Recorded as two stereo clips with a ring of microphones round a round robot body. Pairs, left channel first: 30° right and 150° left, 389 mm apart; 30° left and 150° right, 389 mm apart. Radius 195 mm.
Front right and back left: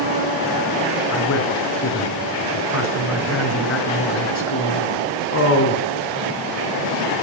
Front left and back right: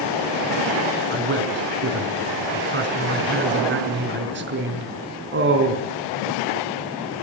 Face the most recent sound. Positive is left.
turn(degrees=-85)